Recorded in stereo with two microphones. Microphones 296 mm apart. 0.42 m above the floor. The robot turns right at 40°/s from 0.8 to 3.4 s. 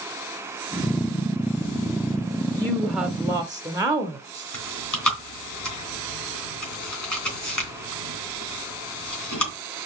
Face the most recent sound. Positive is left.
turn(degrees=80)